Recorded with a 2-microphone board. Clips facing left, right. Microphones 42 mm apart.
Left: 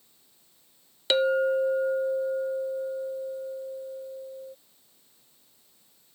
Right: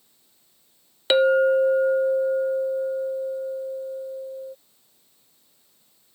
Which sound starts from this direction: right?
A clink, at 1.1 s.